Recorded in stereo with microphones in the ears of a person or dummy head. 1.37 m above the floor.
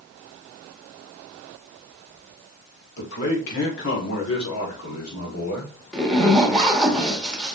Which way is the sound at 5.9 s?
Centre (ahead or behind).